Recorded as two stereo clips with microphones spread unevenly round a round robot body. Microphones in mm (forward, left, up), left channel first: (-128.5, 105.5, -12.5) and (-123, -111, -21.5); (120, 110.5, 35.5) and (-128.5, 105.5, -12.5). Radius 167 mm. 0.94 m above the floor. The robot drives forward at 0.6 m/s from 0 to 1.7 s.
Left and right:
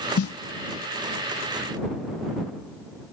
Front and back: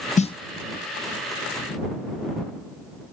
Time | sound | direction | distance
0.2 | a snare drum | 70° left | ?